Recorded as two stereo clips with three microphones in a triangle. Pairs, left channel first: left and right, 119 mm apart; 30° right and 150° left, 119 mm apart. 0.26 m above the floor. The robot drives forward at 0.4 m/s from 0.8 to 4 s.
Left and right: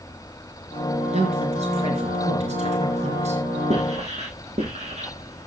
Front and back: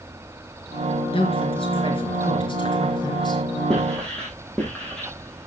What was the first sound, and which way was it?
A woman speaking, 65° right.